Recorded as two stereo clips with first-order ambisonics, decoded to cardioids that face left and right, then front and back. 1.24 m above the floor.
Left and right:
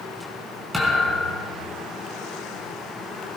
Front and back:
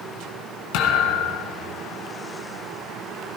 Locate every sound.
0.7 s a thud: 5° right, 3.5 m